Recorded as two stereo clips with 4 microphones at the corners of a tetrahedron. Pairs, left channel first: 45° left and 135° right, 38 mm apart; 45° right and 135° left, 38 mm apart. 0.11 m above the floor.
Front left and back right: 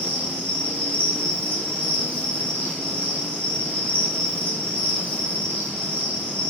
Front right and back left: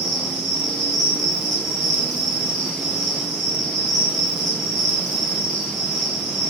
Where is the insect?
130° right, 1.6 m.